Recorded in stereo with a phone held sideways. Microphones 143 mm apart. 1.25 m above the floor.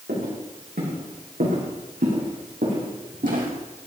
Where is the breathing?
I don't hear breathing.